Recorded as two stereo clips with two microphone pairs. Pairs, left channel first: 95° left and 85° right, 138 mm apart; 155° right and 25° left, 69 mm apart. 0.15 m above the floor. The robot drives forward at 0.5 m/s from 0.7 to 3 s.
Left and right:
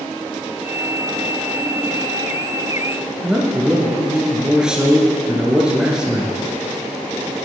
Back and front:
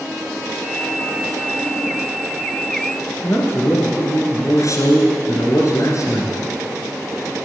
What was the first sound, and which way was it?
A man speaking, 170° right.